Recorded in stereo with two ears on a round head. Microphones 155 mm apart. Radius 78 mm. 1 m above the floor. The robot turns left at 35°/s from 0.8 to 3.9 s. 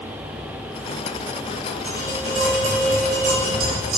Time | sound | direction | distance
1.9 | tapping | 10° right | 4 m